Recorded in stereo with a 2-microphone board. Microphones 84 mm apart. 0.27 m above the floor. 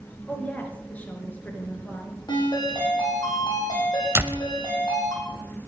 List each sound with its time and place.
0.3 s a woman speaking: 20° left (ahead or behind), 4 m
2.3 s a ringtone: 65° left (ahead or behind), 5.5 m
4.2 s a door slam: 25° right (ahead or behind), 0.7 m